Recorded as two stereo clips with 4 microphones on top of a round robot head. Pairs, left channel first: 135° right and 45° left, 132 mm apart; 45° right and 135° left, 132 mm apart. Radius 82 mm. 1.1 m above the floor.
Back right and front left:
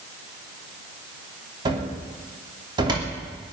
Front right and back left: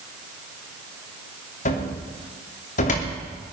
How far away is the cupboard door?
About 2.5 m.